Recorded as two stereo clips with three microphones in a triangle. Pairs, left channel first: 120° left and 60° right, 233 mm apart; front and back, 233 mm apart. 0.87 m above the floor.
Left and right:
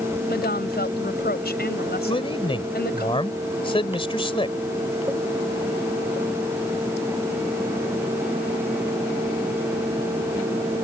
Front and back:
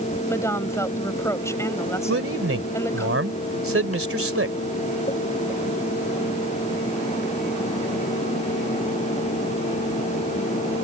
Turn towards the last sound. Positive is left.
turn(degrees=-175)